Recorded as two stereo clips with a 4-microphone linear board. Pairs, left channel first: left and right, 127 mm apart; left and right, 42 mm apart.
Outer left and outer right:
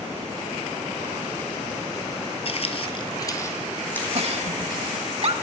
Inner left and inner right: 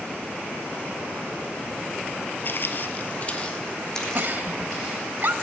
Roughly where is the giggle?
Right.